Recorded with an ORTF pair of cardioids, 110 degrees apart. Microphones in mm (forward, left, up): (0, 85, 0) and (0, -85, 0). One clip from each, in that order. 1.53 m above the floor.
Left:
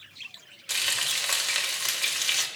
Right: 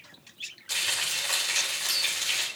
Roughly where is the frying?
Ahead left.